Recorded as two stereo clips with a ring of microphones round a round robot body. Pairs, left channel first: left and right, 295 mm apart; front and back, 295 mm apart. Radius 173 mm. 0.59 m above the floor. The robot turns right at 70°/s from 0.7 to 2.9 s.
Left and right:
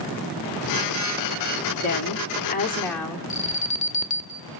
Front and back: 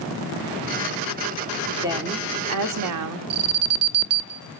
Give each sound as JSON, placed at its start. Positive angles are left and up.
{"t": 1.8, "sound": "a woman speaking", "azimuth_deg": 100, "distance_m": 1.9}
{"t": 3.3, "sound": "an alarm", "azimuth_deg": 150, "distance_m": 1.2}